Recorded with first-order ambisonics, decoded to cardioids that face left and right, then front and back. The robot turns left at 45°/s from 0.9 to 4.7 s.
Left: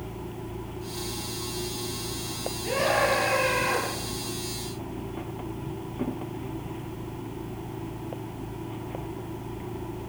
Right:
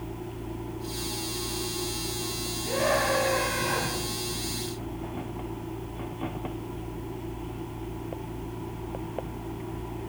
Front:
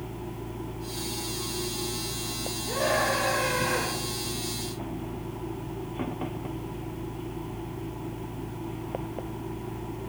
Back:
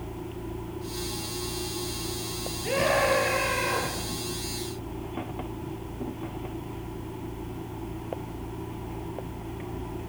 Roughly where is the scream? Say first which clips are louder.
Left 2 dB, back 2 dB; behind.